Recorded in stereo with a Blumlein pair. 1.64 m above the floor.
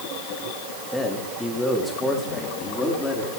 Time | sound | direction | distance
0.9 | a man speaking | 5° left | 4 m